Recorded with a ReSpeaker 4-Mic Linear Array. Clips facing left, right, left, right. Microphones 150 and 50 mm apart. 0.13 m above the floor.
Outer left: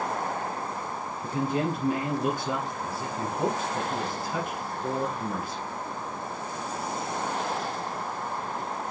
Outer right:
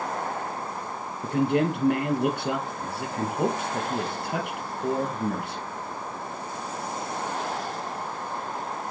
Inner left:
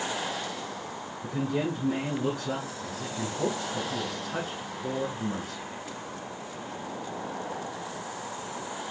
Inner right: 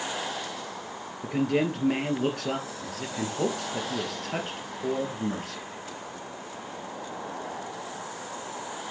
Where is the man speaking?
60° right (ahead or behind), 2.5 m.